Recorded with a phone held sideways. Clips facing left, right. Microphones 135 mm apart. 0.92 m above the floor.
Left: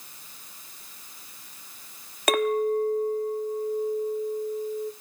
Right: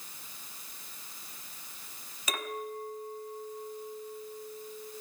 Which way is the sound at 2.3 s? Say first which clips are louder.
Left 15 dB; 65° left (ahead or behind).